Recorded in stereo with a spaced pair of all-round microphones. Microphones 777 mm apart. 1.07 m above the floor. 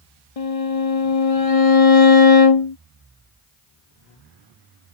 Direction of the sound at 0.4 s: 45° left (ahead or behind).